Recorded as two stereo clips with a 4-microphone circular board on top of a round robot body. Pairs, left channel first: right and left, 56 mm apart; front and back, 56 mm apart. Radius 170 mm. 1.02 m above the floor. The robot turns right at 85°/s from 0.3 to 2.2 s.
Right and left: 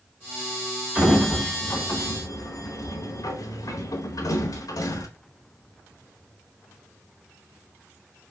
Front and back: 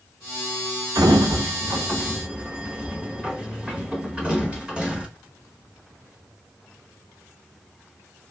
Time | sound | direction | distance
0.9 | a sliding door | 145° left | 1.2 m